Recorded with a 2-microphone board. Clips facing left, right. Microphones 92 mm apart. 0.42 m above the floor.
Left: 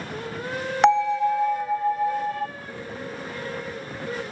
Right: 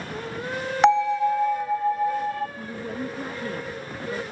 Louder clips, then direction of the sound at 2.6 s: Right 4 dB; 55° right (ahead or behind).